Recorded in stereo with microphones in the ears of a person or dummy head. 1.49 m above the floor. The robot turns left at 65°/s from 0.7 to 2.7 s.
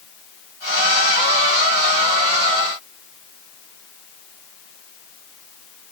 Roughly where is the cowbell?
I don't hear a cowbell.